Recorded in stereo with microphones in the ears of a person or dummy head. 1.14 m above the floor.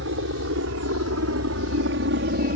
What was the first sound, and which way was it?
A helicopter, 65° right (ahead or behind).